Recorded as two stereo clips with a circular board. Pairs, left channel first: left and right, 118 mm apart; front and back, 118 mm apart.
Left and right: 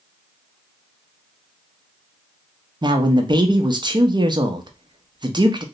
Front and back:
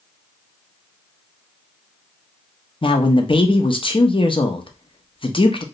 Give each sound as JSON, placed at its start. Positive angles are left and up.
{"t": 2.8, "sound": "a man speaking", "azimuth_deg": -40, "distance_m": 0.6}